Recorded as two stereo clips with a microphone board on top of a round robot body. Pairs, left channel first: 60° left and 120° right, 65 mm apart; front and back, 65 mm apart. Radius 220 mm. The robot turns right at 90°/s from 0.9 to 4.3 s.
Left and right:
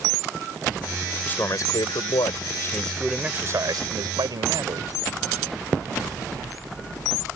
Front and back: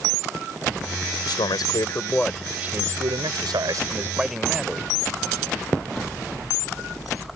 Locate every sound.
1.2 s a man speaking: 10° right; by 4.9 s 95° right